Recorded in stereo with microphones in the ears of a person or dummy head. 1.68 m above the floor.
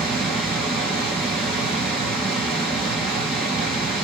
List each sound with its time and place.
0.0 s a fan: 5° right (ahead or behind), 1.8 m